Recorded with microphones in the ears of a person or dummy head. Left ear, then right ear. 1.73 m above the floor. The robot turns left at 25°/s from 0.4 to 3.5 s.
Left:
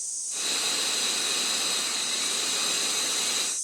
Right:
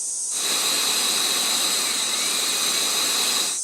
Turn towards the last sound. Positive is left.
turn(degrees=130)